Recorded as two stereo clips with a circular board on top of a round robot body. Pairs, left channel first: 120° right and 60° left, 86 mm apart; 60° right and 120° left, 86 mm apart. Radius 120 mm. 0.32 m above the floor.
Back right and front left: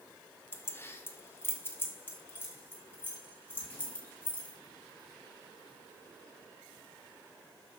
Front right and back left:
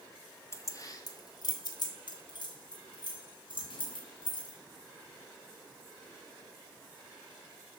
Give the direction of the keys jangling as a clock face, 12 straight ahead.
3 o'clock.